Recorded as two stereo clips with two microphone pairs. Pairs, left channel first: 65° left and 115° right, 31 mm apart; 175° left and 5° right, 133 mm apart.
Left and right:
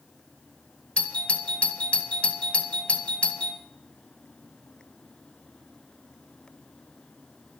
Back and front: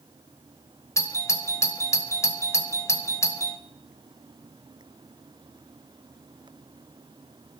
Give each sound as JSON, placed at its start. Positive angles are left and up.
{"t": 1.0, "sound": "a doorbell", "azimuth_deg": 110, "distance_m": 1.8}